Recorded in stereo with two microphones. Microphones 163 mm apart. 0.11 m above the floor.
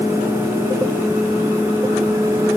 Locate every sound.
Only background noise.